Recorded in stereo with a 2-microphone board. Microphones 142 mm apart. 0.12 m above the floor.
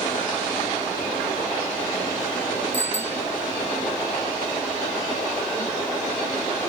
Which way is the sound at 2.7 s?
15° right (ahead or behind).